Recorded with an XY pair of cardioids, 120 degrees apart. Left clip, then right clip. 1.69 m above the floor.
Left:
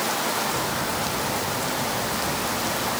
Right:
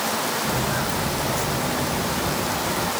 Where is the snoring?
No snoring in this recording.